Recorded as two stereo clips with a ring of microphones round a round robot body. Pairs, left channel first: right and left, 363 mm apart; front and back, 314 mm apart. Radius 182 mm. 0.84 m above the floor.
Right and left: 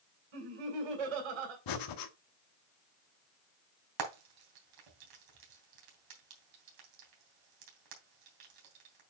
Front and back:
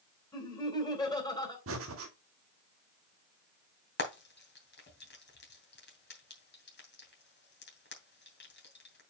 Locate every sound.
0.3 s laughter: 80° left, 4 m
1.7 s breathing: 125° right, 1.2 m
4.0 s frying: 55° left, 3 m